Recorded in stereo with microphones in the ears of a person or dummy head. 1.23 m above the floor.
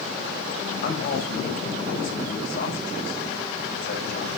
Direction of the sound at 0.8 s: 50° left (ahead or behind).